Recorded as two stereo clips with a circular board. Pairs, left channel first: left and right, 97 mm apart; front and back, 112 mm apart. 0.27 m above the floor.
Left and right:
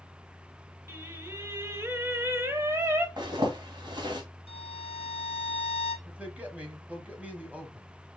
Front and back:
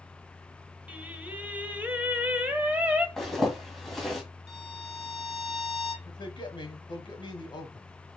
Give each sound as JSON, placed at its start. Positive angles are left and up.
{"t": 0.9, "sound": "singing", "azimuth_deg": -115, "distance_m": 0.8}
{"t": 3.2, "sound": "a zipper", "azimuth_deg": -85, "distance_m": 1.7}
{"t": 4.5, "sound": "a violin", "azimuth_deg": 95, "distance_m": 1.0}
{"t": 6.0, "sound": "a man speaking", "azimuth_deg": -20, "distance_m": 1.4}